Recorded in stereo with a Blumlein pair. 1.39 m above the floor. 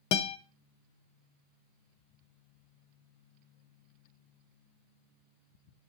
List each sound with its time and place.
0.1 s a guitar: 45° left, 0.5 m